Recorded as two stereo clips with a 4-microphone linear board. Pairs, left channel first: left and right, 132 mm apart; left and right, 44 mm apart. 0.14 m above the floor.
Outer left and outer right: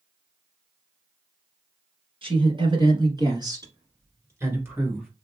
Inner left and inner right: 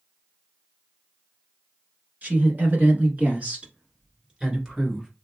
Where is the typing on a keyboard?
I don't hear typing on a keyboard.